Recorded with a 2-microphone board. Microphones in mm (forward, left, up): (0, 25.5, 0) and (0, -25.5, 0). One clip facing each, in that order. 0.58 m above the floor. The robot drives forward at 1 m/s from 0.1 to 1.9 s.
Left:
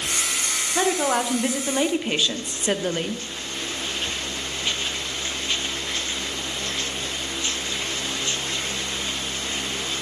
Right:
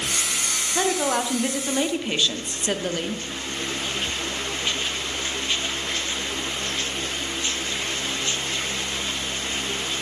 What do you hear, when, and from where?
0.8 s a woman speaking: 5° left (ahead or behind), 1.9 m; by 3.2 s 10° left (ahead or behind), 1.0 m